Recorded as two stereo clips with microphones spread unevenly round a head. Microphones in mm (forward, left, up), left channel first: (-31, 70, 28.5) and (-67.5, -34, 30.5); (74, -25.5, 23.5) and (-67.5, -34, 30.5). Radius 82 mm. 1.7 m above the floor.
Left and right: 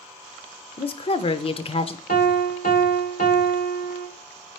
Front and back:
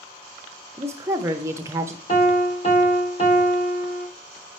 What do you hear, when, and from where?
0.8 s a woman speaking: 110° left, 0.6 m
2.1 s a piano: 55° left, 1.4 m